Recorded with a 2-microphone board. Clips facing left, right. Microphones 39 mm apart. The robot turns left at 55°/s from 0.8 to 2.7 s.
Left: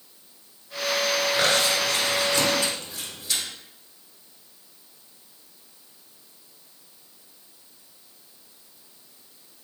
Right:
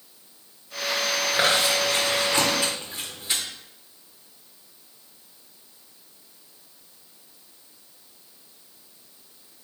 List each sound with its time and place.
1.3 s chewing: 20° right (ahead or behind), 1.5 m; by 3.4 s 35° right (ahead or behind), 1.5 m